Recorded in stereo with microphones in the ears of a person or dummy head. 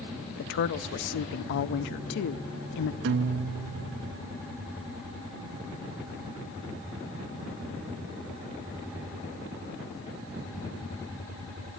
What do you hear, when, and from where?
0.4 s a woman speaking: 55° left (ahead or behind), 0.6 m
3.0 s a guitar: 65° right (ahead or behind), 0.5 m